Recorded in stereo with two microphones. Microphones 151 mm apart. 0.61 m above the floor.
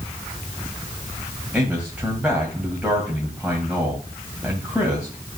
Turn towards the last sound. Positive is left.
turn(degrees=-10)  # may be behind; listen again after turning